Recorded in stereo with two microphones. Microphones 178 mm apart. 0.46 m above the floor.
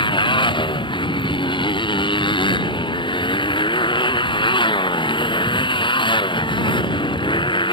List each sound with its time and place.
0.0 s a motorcycle: 30° left (ahead or behind)